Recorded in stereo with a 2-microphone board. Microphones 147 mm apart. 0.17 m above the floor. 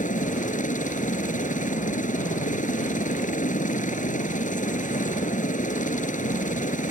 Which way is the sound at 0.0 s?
60° left (ahead or behind).